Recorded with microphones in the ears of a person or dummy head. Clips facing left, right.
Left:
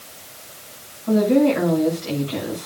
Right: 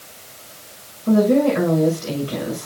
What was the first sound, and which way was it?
A woman speaking, 50° right (ahead or behind).